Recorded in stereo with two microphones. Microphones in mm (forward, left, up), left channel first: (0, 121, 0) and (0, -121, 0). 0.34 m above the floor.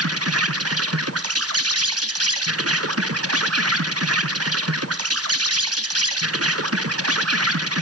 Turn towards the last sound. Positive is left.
turn(degrees=-75)  # may be behind; listen again after turning